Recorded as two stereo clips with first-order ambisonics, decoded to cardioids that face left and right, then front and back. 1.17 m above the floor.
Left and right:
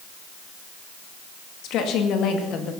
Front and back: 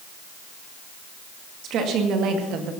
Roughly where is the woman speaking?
Behind left.